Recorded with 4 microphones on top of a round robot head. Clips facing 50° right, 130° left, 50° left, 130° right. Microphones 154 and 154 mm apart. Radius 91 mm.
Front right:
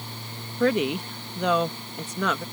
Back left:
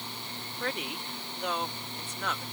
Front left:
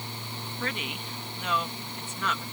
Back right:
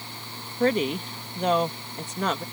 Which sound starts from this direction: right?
A woman speaking, at 0.6 s.